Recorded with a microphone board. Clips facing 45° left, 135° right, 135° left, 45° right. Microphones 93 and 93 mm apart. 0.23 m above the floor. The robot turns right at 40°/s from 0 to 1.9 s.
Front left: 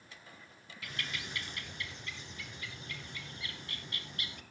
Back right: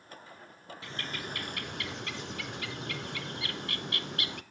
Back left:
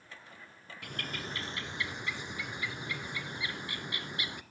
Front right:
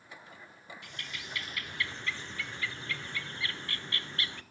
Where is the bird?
165° left, 0.7 m; by 4.4 s 150° right, 0.7 m.